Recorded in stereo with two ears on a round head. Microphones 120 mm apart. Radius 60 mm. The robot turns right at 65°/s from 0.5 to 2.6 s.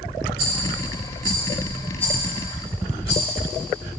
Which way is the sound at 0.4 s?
85° right.